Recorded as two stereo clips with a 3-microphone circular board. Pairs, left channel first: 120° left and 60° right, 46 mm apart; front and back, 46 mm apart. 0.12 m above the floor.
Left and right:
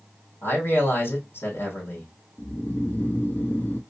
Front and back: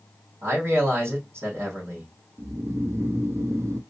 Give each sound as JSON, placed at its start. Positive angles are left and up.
{"t": 0.4, "sound": "a man speaking", "azimuth_deg": 150, "distance_m": 4.5}
{"t": 2.4, "sound": "snoring", "azimuth_deg": 170, "distance_m": 0.8}